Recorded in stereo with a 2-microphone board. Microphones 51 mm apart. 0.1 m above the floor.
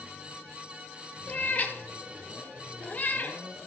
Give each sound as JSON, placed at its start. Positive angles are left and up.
{"t": 1.3, "sound": "a cat meowing", "side_deg": 30, "distance_m": 1.2}